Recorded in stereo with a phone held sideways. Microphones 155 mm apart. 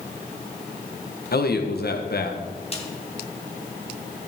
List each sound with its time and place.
1.3 s a man speaking: 70° left (ahead or behind), 1.3 m
2.7 s a snare drum: 35° left (ahead or behind), 2 m